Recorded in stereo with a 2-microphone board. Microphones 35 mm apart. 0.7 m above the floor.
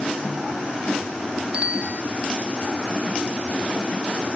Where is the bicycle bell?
35° right (ahead or behind).